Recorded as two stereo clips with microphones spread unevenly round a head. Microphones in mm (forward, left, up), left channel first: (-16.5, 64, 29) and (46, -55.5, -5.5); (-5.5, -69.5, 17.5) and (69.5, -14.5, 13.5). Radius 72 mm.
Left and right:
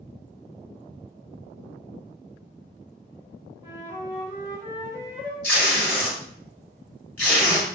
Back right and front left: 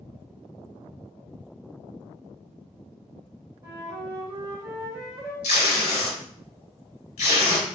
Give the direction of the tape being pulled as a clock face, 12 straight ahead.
5 o'clock.